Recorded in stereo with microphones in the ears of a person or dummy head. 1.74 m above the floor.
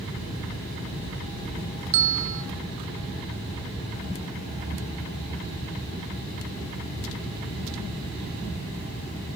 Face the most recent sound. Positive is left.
turn(degrees=-70)  # may be behind; listen again after turning